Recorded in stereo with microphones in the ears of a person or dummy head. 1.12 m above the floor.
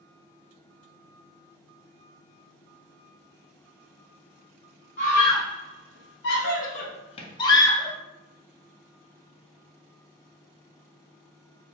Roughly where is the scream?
Left.